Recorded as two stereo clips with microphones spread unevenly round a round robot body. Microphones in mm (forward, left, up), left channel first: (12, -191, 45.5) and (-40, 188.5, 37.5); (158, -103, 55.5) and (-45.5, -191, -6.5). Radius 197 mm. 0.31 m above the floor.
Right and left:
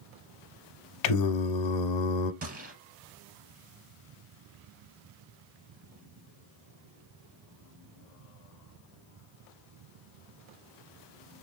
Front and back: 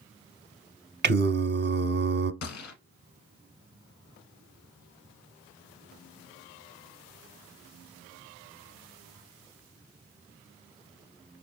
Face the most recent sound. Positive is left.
turn(degrees=30)